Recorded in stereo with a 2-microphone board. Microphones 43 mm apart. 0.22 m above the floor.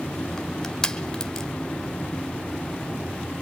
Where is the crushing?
15° left (ahead or behind), 1.6 m.